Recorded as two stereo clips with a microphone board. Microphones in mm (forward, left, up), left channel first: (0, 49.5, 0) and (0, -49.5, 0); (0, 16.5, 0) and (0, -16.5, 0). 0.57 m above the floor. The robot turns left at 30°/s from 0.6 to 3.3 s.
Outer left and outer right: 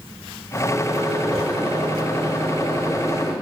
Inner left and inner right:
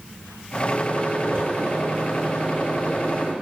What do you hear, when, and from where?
0.6 s a microwave: 55° right, 1.3 m; by 3.3 s 135° right, 1.3 m